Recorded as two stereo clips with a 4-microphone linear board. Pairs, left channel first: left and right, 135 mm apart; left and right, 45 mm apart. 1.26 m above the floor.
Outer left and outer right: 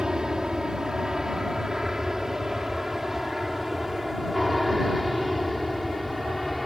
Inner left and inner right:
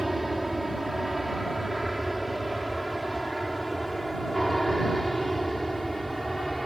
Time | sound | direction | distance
0.0 | an aircraft | 5° right (ahead or behind) | ?